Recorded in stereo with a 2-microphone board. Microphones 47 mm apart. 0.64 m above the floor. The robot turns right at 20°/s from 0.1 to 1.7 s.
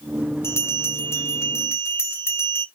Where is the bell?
65° left (ahead or behind), 1.1 m.